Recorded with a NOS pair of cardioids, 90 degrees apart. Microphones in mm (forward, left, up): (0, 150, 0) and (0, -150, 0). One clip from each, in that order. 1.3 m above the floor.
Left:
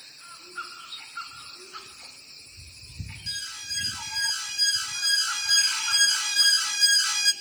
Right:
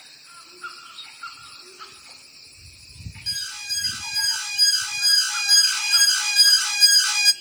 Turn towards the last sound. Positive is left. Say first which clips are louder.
# right 5 dB
turn(degrees=-25)